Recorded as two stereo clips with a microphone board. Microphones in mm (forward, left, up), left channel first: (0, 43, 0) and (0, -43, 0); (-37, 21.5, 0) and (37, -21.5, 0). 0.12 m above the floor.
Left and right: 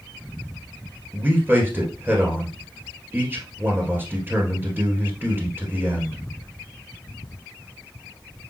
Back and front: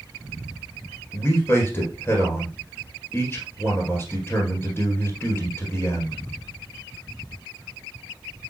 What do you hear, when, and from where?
1.1 s a man speaking: 150° right, 1.9 m